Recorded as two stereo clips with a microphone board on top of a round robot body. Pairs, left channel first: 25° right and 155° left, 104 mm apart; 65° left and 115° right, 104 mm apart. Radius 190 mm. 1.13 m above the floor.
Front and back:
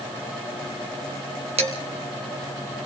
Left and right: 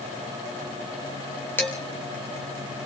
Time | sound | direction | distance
1.6 | dishes clattering | 140° left | 3.5 m